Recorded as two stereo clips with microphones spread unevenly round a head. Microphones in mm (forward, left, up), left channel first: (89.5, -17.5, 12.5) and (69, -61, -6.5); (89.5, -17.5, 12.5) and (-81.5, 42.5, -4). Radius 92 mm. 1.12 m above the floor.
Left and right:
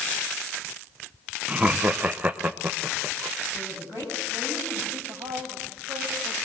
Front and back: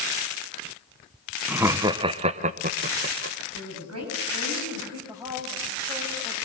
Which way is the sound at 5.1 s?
125° right.